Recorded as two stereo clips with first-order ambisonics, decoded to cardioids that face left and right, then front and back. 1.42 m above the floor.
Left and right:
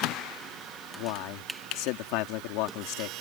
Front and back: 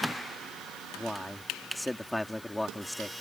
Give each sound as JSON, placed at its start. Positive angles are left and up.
{"t": 1.0, "sound": "a man speaking", "azimuth_deg": 85}